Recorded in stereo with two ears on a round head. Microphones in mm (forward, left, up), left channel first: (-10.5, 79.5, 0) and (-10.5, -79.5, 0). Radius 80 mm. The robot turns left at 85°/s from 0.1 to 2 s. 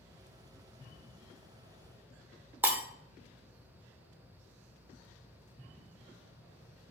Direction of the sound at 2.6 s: 10° right (ahead or behind).